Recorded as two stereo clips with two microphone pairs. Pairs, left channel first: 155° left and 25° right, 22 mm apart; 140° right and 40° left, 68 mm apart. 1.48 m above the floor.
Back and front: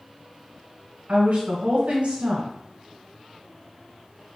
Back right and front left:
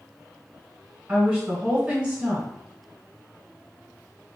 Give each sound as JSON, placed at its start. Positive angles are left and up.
{"t": 1.1, "sound": "a woman speaking", "azimuth_deg": -35, "distance_m": 1.1}